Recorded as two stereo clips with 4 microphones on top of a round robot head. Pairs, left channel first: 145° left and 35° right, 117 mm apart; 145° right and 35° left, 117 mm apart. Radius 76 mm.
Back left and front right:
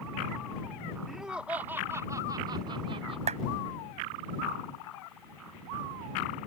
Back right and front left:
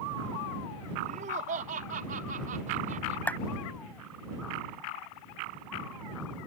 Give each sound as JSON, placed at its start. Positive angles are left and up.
{"t": 1.1, "sound": "laughter", "azimuth_deg": 55}
{"t": 3.3, "sound": "a clap", "azimuth_deg": -70}